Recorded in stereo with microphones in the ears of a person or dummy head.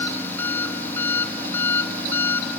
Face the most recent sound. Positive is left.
turn(degrees=10)  # may be behind; listen again after turning